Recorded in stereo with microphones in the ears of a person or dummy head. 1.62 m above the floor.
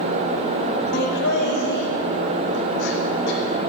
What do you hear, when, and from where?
0.9 s laughter: 70° left (ahead or behind), 2.0 m